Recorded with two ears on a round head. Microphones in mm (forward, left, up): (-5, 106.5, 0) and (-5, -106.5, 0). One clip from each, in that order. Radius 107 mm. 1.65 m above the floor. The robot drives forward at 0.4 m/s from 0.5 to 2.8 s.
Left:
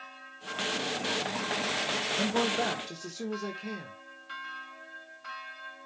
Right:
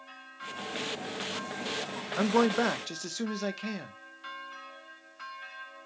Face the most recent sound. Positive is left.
turn(degrees=-55)  # may be behind; listen again after turning